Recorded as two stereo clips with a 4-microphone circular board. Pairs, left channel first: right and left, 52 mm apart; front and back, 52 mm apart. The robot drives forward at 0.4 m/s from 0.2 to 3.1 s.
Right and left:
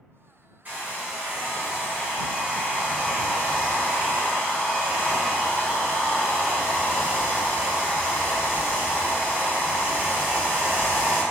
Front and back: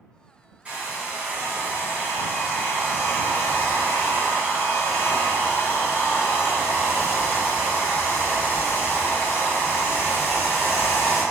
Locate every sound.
0.7 s a hair dryer: 135° left, 1.2 m; by 11.2 s 160° left, 1.9 m